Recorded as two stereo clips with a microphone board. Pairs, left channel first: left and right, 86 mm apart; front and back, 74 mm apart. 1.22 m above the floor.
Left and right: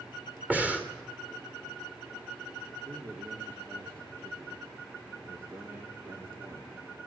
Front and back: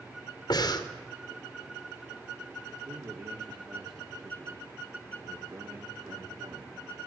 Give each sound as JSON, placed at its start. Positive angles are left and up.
{"t": 0.5, "sound": "breathing", "azimuth_deg": -20, "distance_m": 2.5}
{"t": 2.8, "sound": "a man speaking", "azimuth_deg": -145, "distance_m": 3.5}